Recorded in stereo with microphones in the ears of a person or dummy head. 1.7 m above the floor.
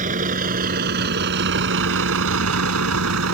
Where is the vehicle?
45° right (ahead or behind); by 3.3 s 75° right (ahead or behind).